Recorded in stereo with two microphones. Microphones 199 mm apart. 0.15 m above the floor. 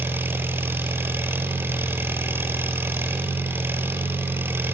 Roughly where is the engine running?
Centre.